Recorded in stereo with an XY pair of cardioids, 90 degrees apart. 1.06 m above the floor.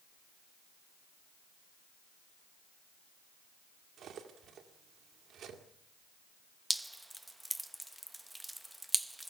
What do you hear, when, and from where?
4.0 s cutlery clinking: 70° right, 1.9 m
6.7 s dripping: 10° right, 0.7 m